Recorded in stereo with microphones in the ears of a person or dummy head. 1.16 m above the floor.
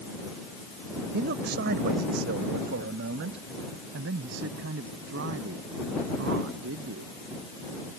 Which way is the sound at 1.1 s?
60° right (ahead or behind).